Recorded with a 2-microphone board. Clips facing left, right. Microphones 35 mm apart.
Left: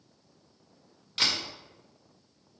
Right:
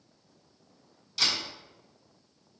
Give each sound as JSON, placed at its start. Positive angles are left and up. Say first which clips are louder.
{"t": 1.2, "sound": "a camera shutter", "louder": "even", "side_deg": 40, "distance_m": 1.8}